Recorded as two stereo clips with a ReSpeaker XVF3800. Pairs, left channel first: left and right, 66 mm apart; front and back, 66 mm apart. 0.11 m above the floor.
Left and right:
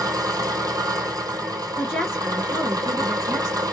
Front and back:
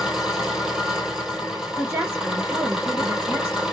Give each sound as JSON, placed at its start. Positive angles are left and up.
{"t": 0.0, "sound": "an engine running", "azimuth_deg": -100, "distance_m": 1.1}
{"t": 1.8, "sound": "a woman speaking", "azimuth_deg": 155, "distance_m": 1.7}